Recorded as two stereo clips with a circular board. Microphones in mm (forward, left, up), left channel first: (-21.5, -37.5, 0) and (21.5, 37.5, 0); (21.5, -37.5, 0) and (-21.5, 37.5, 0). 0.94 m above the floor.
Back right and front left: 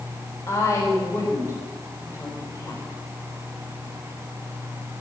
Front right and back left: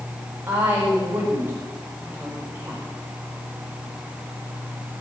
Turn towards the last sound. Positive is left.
turn(degrees=-175)